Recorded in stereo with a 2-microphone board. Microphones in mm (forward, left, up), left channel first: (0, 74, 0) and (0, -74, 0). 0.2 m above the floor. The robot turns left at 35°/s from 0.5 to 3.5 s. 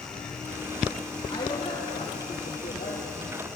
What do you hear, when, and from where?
1.3 s a woman speaking: 155° left, 7 m; by 3.4 s 80° left, 7 m